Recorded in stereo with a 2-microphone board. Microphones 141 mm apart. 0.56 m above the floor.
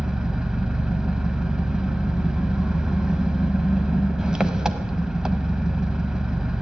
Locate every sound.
0.0 s an engine running: 5° right (ahead or behind), 0.8 m